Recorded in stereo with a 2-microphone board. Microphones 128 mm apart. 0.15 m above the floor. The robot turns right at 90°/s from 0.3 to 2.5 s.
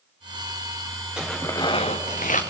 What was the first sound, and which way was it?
Tearing paper, 5° right.